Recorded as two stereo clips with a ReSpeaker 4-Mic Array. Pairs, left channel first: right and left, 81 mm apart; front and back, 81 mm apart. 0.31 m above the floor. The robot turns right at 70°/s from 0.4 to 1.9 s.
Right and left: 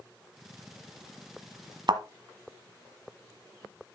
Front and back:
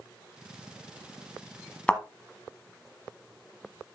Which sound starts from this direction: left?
A thud, at 1.9 s.